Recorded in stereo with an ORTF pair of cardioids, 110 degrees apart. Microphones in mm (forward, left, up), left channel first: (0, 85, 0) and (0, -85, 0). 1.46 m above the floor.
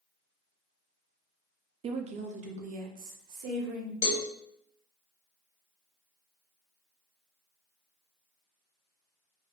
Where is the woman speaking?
35° right, 0.5 m; by 3.9 s 60° right, 1.5 m.